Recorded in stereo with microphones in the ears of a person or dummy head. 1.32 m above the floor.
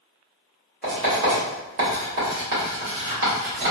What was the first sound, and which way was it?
Writing, 60° right (ahead or behind).